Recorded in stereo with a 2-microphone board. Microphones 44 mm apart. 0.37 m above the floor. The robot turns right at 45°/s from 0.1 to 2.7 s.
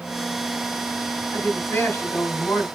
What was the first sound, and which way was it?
A woman speaking, 60° left.